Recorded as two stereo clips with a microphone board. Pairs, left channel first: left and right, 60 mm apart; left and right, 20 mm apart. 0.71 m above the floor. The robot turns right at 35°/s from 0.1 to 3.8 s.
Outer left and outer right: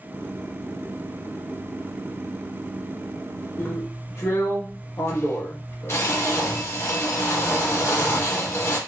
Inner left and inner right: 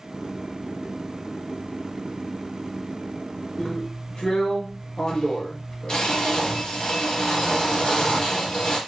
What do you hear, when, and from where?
3.6 s a drill: 40° left (ahead or behind), 0.7 m; by 8.8 s 45° left (ahead or behind), 0.7 m